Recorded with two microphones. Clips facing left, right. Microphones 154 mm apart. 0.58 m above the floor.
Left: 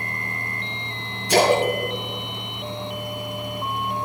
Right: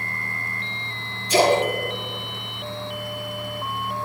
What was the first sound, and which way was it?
A splash, 80° left.